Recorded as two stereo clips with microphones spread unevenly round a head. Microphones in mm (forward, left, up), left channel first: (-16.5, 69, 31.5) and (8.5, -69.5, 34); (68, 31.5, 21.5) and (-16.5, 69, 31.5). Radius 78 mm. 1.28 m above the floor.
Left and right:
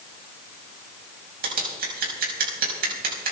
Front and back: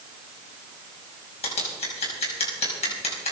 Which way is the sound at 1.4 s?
55° right.